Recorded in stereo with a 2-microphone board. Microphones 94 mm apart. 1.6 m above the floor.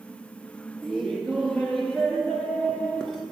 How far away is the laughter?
About 0.7 m.